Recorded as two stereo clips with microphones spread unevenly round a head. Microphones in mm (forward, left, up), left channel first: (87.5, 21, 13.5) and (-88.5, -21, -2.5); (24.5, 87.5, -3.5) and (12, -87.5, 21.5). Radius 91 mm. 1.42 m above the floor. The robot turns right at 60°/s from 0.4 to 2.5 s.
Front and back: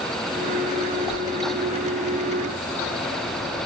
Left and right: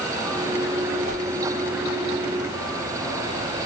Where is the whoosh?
75° right, 1.8 m; by 1.2 s 65° right, 1.8 m.